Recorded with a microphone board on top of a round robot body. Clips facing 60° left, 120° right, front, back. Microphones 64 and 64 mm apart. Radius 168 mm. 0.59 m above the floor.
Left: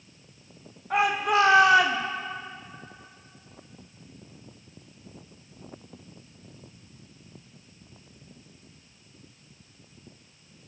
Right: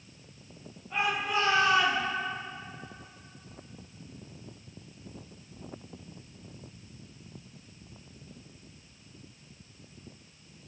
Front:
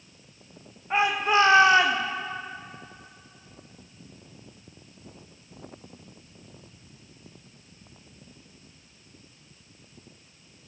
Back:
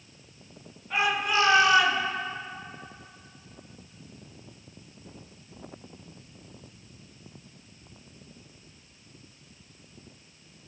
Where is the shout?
60° left, 2.5 m; by 2.0 s 55° left, 1.9 m.